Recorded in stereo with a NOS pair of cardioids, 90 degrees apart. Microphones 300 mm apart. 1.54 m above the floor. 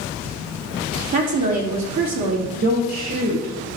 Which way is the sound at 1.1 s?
65° right.